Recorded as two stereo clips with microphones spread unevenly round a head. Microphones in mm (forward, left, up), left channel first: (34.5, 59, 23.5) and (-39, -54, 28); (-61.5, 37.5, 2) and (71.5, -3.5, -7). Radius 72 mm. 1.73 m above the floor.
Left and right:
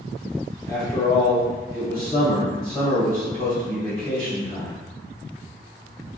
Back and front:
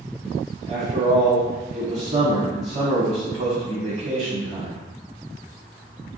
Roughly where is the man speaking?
Ahead.